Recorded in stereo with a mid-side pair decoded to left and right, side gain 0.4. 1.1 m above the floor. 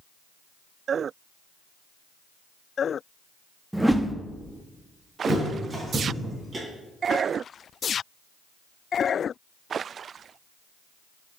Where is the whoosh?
10° right, 0.8 m.